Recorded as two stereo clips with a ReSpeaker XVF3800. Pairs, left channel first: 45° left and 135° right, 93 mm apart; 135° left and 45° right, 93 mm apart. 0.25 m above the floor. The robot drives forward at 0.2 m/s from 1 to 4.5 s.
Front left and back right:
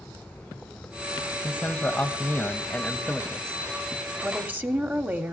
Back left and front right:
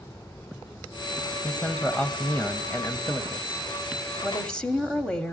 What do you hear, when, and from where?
1.4 s a man speaking: 70° left, 1.1 m; by 3.6 s 120° left, 1.1 m
4.2 s a woman speaking: 155° right, 1.0 m; by 5.3 s 160° right, 1.0 m